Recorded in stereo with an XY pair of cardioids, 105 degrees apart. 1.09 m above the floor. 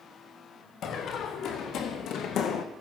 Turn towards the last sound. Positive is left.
turn(degrees=75)